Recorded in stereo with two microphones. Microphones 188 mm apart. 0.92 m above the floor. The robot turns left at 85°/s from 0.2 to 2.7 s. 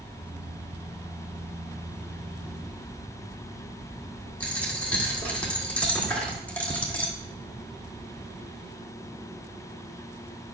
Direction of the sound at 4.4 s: 5° left (ahead or behind).